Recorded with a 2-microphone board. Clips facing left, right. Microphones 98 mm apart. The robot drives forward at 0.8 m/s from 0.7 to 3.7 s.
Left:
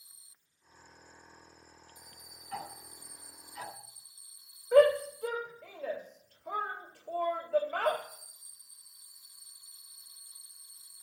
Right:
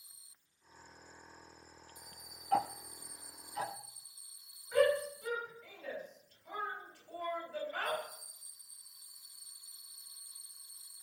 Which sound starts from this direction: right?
Ticking, at 2.5 s.